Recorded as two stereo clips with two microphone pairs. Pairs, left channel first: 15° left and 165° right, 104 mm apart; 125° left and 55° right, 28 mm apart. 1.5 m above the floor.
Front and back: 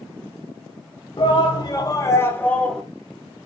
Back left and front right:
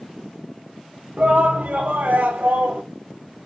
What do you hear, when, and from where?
1.2 s a shout: 20° right, 1.2 m; by 2.8 s 70° right, 1.2 m